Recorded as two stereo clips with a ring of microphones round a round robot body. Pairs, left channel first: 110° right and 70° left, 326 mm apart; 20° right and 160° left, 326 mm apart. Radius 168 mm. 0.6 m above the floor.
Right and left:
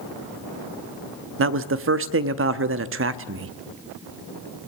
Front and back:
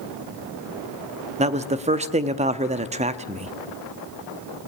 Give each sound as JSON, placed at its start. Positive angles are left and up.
{"t": 1.4, "sound": "a man speaking", "azimuth_deg": 95, "distance_m": 0.9}